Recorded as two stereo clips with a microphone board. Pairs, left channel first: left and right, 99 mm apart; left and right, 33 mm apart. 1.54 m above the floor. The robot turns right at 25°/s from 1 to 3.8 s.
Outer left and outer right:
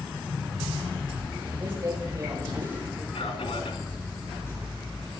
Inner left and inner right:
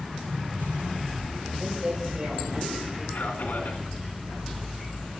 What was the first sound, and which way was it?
A woman speaking, 160° right.